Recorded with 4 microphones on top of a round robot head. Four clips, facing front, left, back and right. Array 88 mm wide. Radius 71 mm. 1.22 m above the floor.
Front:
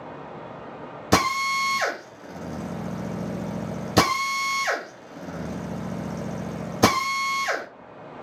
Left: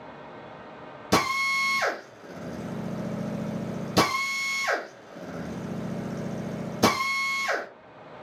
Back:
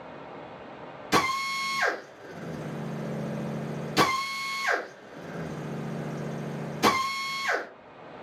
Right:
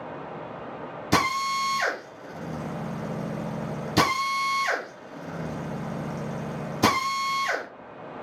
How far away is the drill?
About 1.0 m.